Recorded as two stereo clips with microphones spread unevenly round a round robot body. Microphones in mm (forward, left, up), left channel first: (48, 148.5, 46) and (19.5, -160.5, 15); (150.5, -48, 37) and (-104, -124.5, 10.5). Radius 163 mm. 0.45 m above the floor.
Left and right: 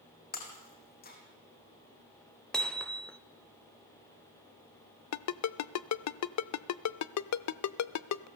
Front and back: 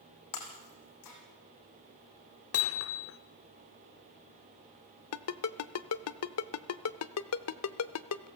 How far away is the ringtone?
About 0.7 m.